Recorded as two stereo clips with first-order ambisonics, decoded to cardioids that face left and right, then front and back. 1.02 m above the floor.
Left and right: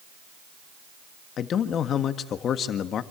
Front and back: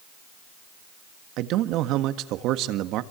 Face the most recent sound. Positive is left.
turn(degrees=145)